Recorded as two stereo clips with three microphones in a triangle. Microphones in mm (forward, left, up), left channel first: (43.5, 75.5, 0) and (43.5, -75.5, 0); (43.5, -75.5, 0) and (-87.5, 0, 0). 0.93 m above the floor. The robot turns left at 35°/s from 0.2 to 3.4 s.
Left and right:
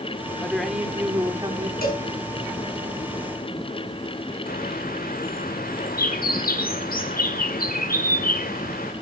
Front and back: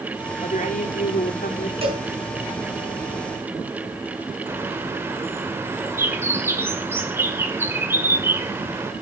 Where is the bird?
75° left, 2 m.